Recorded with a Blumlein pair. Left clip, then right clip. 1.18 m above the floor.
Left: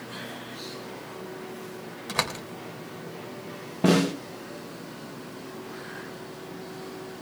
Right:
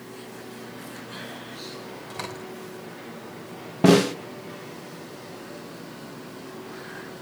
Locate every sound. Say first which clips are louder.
2.1 s a door slam: left 8 dB; 45° left, 3.5 m
3.8 s a snare drum: right 5 dB; 15° right, 1.2 m